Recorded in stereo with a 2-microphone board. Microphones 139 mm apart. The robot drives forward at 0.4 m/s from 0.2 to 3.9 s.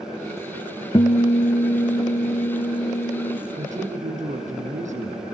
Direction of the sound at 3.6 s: 65° right (ahead or behind).